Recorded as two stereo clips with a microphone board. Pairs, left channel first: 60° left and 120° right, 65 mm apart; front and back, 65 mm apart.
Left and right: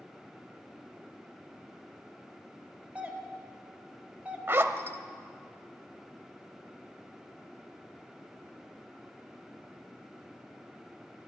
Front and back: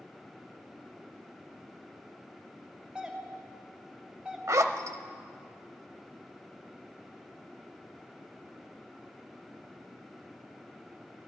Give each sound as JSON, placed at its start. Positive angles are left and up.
{"t": 3.0, "sound": "a doorbell", "azimuth_deg": -135, "distance_m": 1.4}
{"t": 4.5, "sound": "a zipper", "azimuth_deg": -165, "distance_m": 0.8}